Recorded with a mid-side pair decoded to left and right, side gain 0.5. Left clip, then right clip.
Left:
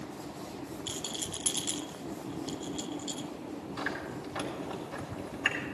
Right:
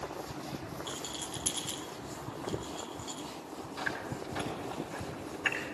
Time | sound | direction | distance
0.9 | a rattle | 30° left | 0.7 m
3.8 | chewing | 30° left | 5 m